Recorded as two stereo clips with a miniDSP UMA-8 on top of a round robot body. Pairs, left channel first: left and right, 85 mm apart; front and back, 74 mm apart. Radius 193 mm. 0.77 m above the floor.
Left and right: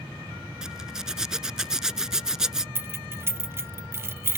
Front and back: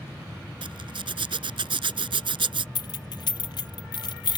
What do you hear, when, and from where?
0.6 s a zipper: 175° right
2.8 s keys jangling: 25° right